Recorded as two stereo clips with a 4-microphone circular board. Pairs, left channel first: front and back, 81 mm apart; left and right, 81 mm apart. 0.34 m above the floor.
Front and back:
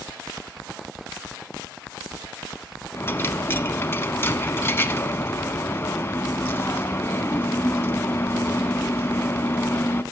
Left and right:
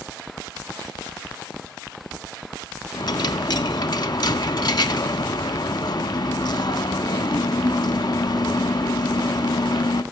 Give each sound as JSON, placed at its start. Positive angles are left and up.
{"t": 2.9, "sound": "a dropped coin", "azimuth_deg": 60, "distance_m": 0.6}